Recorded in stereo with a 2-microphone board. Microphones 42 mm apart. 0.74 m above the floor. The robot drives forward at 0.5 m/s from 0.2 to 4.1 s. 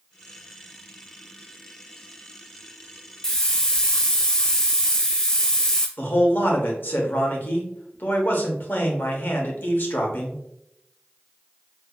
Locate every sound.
3.2 s a hiss: 15° left (ahead or behind), 0.6 m; by 5.9 s 20° left (ahead or behind), 0.5 m
6.0 s a man speaking: 50° left (ahead or behind), 0.9 m